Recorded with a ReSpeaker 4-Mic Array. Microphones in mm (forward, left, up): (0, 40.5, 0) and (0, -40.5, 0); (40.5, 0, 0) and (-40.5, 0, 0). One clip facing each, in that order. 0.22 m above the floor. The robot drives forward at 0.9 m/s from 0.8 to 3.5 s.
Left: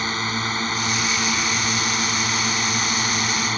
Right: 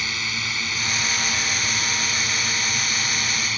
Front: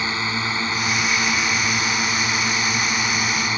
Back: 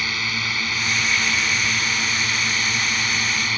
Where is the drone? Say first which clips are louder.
Left 5 dB, front 3 dB; 55° left; by 3.6 s 60° left.